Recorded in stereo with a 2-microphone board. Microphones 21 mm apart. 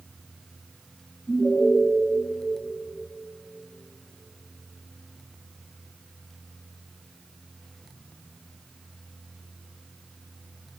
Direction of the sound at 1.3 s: 25° left (ahead or behind).